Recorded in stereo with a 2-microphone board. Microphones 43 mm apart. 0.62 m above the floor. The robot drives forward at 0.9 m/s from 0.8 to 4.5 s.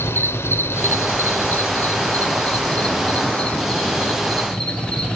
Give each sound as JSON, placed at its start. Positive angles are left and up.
{"t": 0.0, "sound": "an insect", "side_deg": 85, "distance_m": 1.0}